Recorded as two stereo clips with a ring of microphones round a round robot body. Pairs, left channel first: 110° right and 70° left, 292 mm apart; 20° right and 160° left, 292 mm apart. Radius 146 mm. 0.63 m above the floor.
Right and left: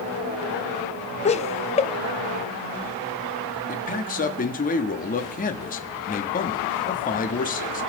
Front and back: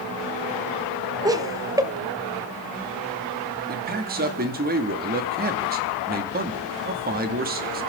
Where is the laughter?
140° right, 0.6 m.